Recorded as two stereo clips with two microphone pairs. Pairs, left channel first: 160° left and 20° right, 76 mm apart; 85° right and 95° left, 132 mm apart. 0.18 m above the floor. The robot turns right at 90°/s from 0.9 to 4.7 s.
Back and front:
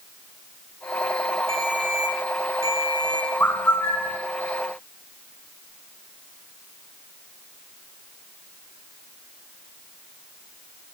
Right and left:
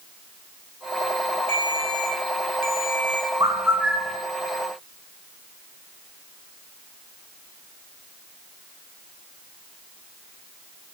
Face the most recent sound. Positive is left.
turn(degrees=-120)